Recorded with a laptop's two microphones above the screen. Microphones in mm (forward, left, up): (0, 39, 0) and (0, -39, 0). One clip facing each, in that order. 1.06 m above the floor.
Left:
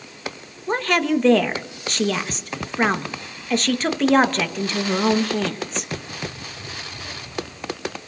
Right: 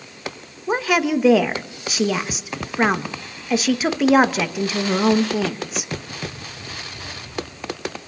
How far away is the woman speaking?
About 1.3 m.